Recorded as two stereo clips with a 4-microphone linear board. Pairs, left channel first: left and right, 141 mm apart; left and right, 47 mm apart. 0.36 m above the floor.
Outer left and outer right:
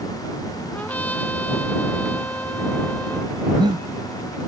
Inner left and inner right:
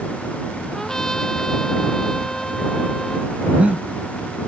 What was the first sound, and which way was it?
A trumpet, 10° left (ahead or behind).